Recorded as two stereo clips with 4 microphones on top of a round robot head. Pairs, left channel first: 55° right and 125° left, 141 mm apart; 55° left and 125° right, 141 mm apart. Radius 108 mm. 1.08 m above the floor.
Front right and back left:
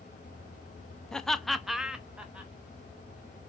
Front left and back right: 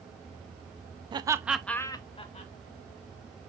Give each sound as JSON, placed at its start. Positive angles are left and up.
{"t": 1.1, "sound": "laughter", "azimuth_deg": -135, "distance_m": 0.6}